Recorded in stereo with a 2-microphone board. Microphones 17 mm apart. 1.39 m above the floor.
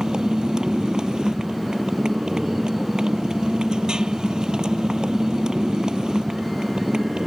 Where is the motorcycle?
50° right (ahead or behind).